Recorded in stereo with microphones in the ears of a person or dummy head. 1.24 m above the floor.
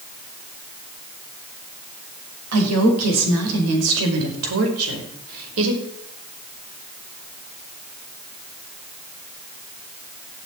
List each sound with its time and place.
2.5 s a woman speaking: 85° right, 5.5 m; by 5.8 s 75° right (ahead or behind), 5 m